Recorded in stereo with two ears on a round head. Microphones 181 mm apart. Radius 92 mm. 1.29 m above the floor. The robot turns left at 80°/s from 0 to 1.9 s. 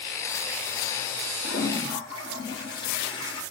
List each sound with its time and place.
1.4 s a toilet flushing: 60° left, 3 m; by 3.4 s 25° left, 3 m